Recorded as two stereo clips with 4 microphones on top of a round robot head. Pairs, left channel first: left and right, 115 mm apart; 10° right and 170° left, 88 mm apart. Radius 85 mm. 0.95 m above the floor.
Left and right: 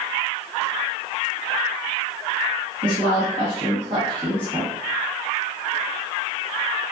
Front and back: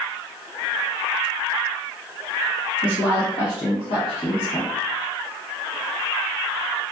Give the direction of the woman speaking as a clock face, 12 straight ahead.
1 o'clock.